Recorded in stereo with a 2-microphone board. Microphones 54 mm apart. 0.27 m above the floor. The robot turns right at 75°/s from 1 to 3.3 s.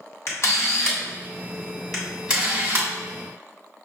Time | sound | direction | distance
0.3 | a camera shutter | 50° left (ahead or behind) | 1.4 m